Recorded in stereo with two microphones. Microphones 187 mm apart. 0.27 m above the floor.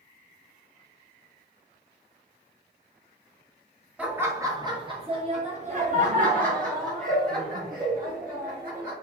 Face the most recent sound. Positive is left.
turn(degrees=-55)  # may be behind; listen again after turning